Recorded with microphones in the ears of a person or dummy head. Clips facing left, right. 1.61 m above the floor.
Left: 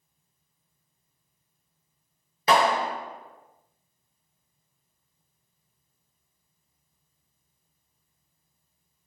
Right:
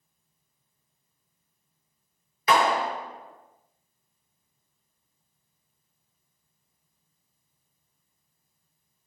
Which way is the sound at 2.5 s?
25° left (ahead or behind).